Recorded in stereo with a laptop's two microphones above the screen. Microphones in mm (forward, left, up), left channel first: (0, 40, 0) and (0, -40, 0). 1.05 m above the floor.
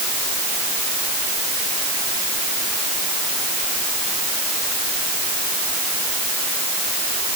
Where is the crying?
No crying in this recording.